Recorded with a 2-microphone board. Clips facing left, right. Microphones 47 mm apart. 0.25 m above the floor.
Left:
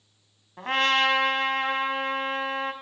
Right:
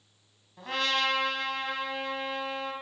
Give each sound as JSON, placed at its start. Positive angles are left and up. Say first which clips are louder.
{"t": 0.6, "sound": "a trumpet", "louder": "left 6 dB", "side_deg": 50, "distance_m": 1.3}